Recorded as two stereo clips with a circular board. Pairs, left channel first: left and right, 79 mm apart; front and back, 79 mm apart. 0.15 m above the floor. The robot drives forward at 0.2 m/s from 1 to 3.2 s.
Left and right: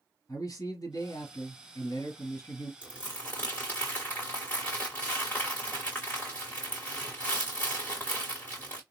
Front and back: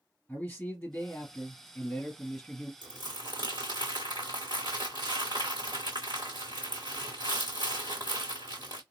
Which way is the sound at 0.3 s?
70° left.